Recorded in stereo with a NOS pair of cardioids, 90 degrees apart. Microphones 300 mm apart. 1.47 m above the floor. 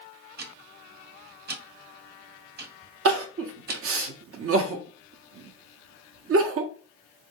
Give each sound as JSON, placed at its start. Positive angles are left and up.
{"t": 0.4, "sound": "ticking", "azimuth_deg": -35, "distance_m": 1.2}
{"t": 3.0, "sound": "crying", "azimuth_deg": -50, "distance_m": 0.8}